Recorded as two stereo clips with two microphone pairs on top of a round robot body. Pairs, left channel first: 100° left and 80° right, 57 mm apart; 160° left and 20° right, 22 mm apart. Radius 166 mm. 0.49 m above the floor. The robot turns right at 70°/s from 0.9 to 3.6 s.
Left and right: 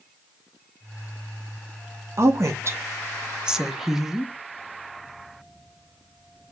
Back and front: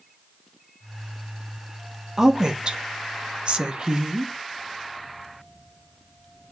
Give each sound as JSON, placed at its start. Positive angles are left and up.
{"t": 2.2, "sound": "a woman speaking", "azimuth_deg": -90, "distance_m": 1.0}